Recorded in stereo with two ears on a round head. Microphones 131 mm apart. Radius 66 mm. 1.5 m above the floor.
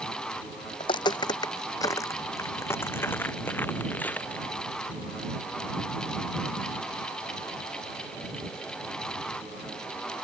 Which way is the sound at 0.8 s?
30° left (ahead or behind).